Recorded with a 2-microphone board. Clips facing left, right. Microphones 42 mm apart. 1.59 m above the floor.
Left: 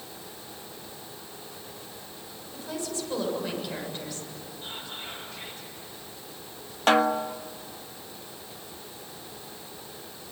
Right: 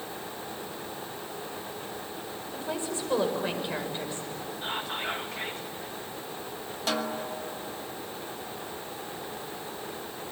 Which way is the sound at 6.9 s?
50° left (ahead or behind).